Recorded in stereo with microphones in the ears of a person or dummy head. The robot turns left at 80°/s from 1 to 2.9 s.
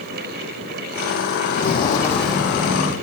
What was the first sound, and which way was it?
Footsteps, 50° left (ahead or behind).